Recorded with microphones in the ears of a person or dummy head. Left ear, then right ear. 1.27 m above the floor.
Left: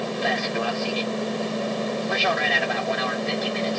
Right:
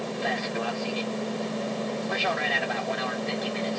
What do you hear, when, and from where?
0.0 s an aircraft: 15° left (ahead or behind); by 3.8 s 10° left (ahead or behind)